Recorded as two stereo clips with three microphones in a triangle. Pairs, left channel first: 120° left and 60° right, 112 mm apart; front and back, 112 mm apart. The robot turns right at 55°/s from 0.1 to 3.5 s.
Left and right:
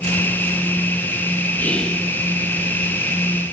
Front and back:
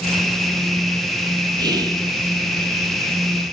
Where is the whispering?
Straight behind, 0.7 m; by 2.0 s 155° right, 0.7 m.